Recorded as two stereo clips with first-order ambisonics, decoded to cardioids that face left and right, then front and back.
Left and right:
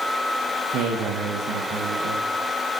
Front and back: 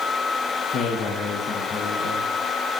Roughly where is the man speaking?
Ahead right.